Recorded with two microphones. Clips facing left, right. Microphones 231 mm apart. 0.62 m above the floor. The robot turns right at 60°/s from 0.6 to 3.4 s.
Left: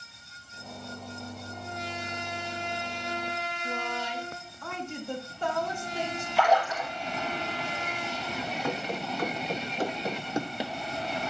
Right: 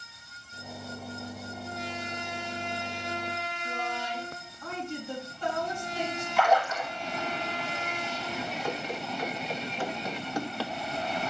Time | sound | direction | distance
3.6 | a woman speaking | 50° left (ahead or behind) | 4 m
6.4 | a splash | 35° left (ahead or behind) | 4 m
8.6 | running footsteps | 60° left (ahead or behind) | 2.5 m